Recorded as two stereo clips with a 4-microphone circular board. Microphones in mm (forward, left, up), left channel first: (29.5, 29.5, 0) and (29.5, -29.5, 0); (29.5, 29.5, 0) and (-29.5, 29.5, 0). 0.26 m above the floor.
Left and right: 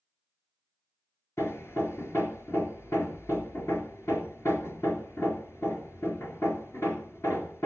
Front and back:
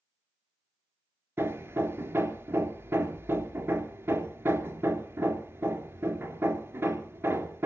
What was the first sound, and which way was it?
Hammering, 130° left.